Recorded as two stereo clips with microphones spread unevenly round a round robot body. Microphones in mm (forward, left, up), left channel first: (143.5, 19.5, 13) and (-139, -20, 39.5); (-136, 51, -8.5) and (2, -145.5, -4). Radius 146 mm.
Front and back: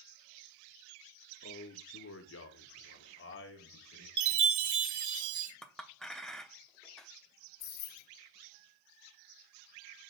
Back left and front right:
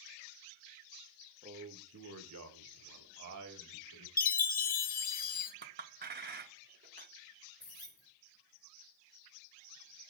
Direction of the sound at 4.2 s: 175° left.